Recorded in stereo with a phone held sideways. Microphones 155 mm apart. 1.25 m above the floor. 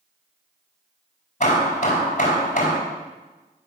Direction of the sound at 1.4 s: 50° left (ahead or behind).